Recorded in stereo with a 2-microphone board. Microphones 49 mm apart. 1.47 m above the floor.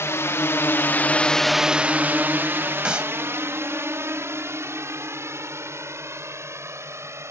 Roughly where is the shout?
I don't hear a shout.